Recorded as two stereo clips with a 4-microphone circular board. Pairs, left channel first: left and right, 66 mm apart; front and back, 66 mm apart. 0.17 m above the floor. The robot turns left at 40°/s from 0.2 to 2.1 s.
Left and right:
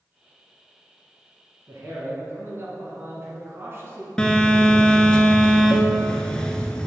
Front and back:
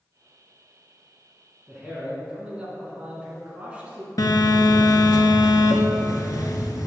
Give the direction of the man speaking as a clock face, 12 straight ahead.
3 o'clock.